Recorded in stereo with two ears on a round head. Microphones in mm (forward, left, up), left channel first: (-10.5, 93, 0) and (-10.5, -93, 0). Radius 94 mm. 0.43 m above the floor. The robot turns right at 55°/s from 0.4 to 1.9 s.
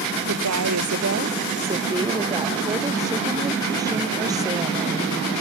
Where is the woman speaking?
100° right; by 5.2 s 15° right.